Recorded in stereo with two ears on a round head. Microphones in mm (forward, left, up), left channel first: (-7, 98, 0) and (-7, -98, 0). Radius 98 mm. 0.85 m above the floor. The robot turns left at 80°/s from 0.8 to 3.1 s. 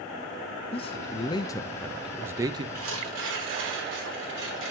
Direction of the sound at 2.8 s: 70° right (ahead or behind).